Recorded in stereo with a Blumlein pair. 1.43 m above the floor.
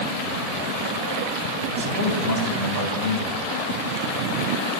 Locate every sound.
1.7 s a man speaking: 65° right, 3 m